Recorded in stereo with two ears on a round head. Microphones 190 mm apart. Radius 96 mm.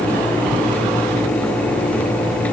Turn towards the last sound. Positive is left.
No sound to turn to.